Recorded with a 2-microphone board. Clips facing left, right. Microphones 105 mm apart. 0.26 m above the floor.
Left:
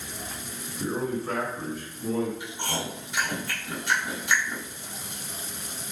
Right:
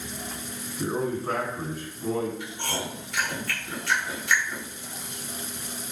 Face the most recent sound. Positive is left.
turn(degrees=20)  # may be behind; listen again after turning